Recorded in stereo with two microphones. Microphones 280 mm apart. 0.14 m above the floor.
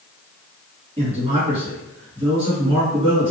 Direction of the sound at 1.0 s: 20° right (ahead or behind).